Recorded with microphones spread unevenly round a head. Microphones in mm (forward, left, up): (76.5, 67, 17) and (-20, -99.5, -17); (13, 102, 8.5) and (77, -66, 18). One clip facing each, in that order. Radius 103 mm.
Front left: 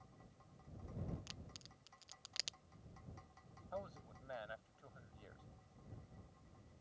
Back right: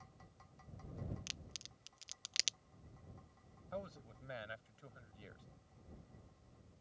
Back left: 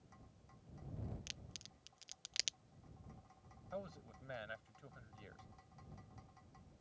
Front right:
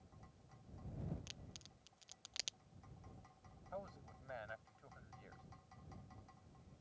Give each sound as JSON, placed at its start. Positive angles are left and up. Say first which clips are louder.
{"t": 1.3, "sound": "a crack", "louder": "even, even", "azimuth_deg": 180}
{"t": 3.7, "sound": "a man speaking", "louder": "back right 2 dB, back left 2 dB", "azimuth_deg": 175}